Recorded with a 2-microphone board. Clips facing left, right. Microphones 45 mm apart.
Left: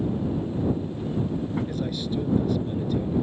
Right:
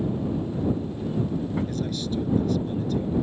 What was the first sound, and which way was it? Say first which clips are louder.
A man speaking: even; 10° left (ahead or behind).